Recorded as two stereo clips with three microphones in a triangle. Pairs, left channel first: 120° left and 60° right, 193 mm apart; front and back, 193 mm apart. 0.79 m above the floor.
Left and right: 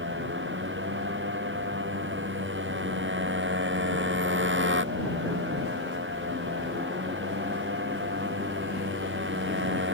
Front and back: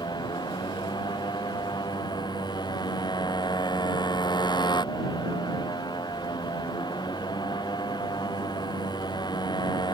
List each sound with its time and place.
0.0 s a motorcycle: 70° right